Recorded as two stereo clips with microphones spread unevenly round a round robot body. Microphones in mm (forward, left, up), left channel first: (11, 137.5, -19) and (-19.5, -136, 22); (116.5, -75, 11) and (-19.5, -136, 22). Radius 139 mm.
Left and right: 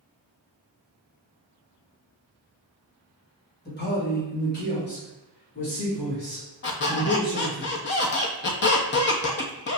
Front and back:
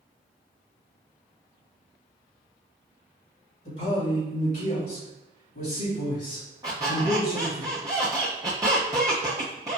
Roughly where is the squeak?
Behind left.